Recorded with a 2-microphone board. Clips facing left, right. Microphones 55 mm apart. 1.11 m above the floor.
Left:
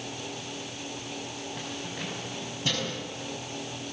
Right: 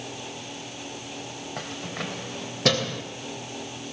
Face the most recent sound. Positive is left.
turn(degrees=-80)